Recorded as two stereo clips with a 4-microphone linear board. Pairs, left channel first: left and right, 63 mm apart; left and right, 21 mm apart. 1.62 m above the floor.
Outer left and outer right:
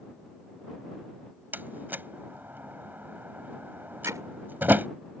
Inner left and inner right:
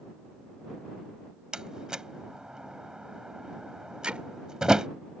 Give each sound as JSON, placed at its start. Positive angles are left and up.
{"t": 1.5, "sound": "a door slam", "side_deg": -30}
{"t": 4.0, "sound": "hammering", "side_deg": -60}